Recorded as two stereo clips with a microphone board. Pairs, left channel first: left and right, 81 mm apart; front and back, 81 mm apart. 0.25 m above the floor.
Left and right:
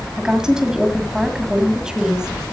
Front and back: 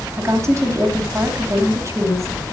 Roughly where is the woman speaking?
Behind.